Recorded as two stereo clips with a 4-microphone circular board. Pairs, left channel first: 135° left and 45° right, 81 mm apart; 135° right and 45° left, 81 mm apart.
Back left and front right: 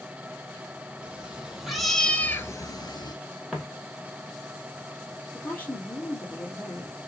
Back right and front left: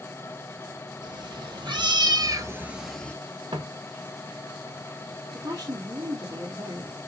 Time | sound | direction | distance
1.0 | a cat meowing | 30° left | 1.7 m
3.5 | footsteps | 40° left | 1.4 m
5.3 | a woman speaking | 65° left | 1.9 m